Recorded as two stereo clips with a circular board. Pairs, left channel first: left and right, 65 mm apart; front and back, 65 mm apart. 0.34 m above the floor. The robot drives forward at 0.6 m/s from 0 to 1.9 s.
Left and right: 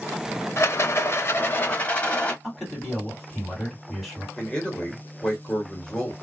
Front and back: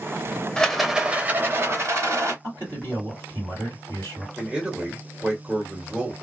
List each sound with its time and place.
0.6 s a rattle: 75° left, 0.6 m; by 2.3 s 150° left, 0.9 m
2.4 s a man speaking: 175° left, 2 m
4.4 s a man speaking: 140° left, 1.1 m